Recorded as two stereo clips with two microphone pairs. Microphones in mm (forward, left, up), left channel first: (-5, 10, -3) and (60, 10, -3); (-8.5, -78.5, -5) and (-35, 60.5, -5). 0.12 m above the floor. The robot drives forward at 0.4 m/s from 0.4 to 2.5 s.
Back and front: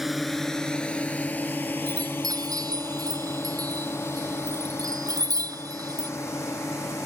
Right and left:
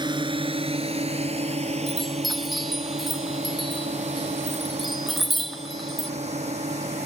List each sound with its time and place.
0.0 s a drone: 85° left; by 7.1 s 140° left
1.9 s a chime: 10° left